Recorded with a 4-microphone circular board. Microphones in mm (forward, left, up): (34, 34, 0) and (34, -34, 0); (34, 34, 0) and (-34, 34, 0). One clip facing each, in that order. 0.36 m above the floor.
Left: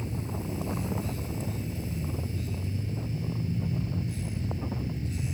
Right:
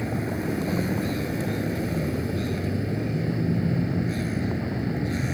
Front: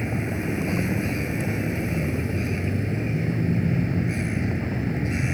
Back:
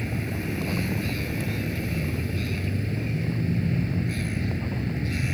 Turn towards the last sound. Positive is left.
turn(degrees=-70)